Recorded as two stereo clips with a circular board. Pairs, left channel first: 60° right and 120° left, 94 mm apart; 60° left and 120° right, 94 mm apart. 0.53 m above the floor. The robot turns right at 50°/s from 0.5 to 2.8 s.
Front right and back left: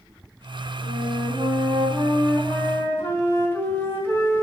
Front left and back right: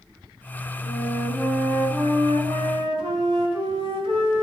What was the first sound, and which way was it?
A flute, 135° left.